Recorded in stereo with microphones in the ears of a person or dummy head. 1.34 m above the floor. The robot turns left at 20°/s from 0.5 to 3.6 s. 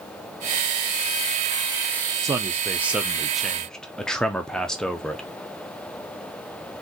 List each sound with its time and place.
2.2 s a man speaking: 20° right (ahead or behind), 0.5 m; by 5.2 s centre (ahead or behind), 0.5 m